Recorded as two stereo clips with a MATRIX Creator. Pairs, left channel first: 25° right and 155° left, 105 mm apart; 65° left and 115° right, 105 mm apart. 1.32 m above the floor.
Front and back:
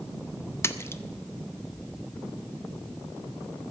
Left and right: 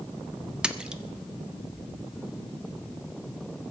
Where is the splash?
45° right, 0.6 m.